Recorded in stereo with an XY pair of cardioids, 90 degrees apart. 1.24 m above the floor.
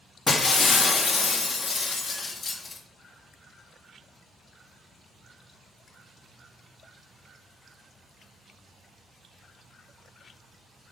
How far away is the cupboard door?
No cupboard door in this recording.